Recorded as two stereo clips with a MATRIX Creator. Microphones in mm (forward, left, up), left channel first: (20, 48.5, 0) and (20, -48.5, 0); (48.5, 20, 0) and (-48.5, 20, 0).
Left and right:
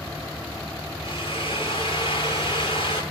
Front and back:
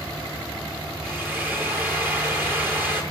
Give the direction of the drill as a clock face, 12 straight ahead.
8 o'clock.